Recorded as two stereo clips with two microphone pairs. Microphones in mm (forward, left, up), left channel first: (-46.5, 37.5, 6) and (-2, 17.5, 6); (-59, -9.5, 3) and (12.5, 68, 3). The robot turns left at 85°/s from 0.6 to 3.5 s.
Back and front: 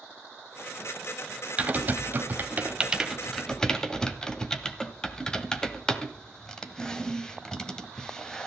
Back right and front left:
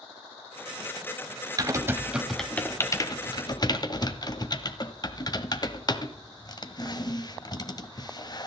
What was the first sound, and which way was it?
Typing on a keyboard, 20° left.